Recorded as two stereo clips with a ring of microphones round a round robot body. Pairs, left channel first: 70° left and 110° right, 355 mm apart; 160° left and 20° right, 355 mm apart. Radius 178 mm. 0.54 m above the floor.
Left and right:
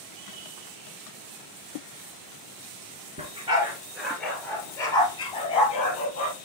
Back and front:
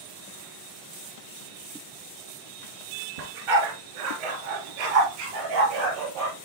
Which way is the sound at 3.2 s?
40° right.